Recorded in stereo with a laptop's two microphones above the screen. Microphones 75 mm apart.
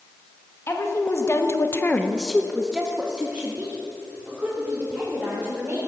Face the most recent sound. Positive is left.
turn(degrees=-20)  # may be behind; listen again after turning